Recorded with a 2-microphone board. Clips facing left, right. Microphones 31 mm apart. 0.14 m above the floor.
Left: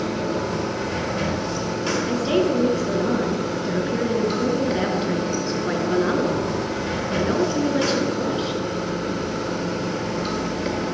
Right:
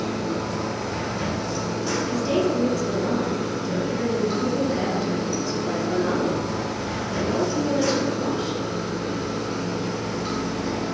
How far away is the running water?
About 3 m.